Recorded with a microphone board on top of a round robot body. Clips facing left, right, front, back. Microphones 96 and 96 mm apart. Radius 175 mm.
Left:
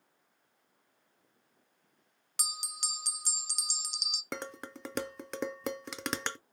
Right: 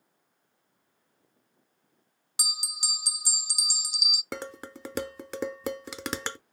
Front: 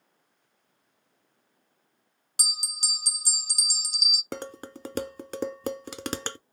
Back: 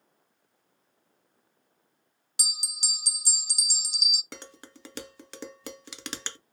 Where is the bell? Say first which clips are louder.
Right 2 dB, front 3 dB; 10° right, 0.5 m.